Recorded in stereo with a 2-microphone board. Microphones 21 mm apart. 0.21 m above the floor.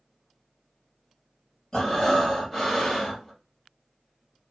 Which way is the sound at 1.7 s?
15° left (ahead or behind).